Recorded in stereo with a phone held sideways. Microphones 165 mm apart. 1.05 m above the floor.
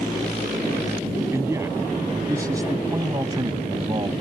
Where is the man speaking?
15° right (ahead or behind); by 4.1 s 30° right (ahead or behind).